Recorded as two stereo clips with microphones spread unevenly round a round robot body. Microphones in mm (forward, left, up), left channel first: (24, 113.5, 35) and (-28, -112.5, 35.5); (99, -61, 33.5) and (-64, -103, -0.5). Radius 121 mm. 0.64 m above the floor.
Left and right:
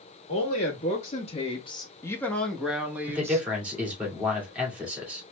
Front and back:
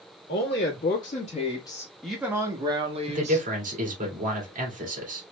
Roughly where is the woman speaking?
Ahead left.